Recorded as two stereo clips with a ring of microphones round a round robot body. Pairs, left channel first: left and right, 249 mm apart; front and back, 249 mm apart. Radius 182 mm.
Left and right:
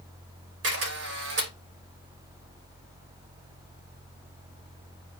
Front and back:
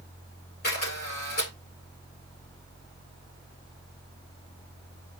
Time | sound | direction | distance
0.6 | a camera shutter | 65° right | 8.5 m